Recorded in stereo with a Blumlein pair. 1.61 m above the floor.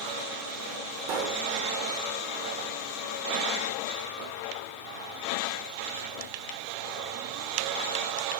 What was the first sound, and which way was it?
A pop, 40° right.